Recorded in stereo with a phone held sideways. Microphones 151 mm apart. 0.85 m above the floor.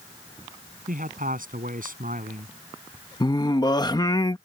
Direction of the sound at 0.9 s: 65° right (ahead or behind).